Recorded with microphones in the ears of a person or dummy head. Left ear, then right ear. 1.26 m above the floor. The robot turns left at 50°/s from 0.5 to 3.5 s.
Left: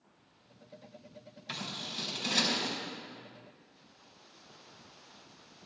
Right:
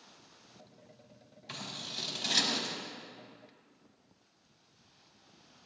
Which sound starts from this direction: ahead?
Scissors, at 1.5 s.